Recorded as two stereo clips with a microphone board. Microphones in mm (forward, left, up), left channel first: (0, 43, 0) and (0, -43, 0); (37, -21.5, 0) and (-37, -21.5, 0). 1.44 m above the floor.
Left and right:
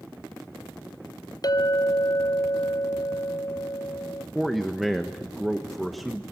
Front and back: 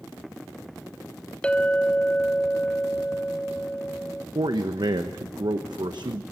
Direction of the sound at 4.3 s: Straight behind.